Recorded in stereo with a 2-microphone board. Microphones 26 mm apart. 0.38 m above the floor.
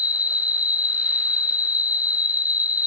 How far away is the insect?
About 0.8 m.